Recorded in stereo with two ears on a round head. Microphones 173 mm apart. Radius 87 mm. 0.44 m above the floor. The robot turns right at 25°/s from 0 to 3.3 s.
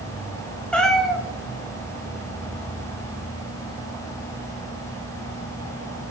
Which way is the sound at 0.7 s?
5° left (ahead or behind).